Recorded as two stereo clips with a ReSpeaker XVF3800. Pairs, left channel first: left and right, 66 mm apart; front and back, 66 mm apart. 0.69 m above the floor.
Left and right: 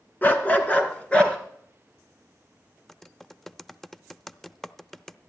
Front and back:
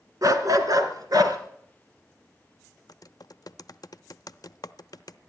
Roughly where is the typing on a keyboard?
Ahead.